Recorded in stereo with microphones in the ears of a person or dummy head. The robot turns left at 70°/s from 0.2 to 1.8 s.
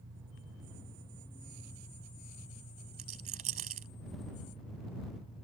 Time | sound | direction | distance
0.0 | an engine running | 95° right | ?
3.0 | a rattle | 35° right (ahead or behind) | ?